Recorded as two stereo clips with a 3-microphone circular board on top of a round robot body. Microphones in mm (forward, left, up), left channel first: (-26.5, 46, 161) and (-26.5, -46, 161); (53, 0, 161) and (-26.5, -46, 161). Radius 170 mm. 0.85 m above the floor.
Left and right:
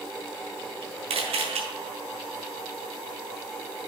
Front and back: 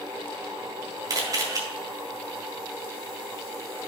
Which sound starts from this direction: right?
A camera shutter, at 1.1 s.